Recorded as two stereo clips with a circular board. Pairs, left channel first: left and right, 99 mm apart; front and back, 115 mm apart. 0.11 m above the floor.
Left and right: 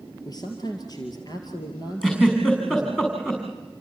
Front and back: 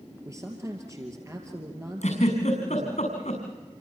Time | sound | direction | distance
0.2 | a man speaking | 125° left | 2.5 m
2.0 | a giggle | 10° left | 6 m